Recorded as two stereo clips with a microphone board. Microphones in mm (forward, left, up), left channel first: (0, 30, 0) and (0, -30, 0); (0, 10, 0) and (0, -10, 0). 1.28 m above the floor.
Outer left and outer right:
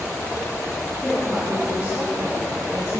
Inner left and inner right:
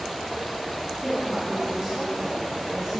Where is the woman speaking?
20° right (ahead or behind), 3 m; by 3.0 s 55° right (ahead or behind), 2 m.